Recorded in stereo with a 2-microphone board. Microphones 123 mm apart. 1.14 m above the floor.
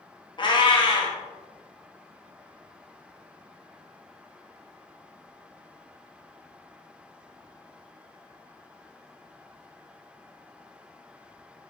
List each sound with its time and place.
0.4 s a cat meowing: 40° left (ahead or behind), 0.6 m